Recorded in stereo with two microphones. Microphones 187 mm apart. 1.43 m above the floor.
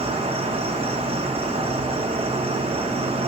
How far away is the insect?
About 0.9 m.